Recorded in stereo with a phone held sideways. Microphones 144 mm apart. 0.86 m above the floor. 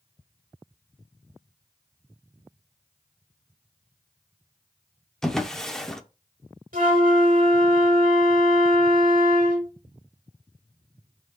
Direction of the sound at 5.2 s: 5° left (ahead or behind).